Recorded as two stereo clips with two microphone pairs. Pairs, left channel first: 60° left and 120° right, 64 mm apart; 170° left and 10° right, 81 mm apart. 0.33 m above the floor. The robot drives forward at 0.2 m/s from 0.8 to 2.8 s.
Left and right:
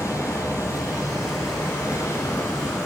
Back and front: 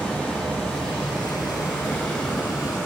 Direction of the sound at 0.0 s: 95° left.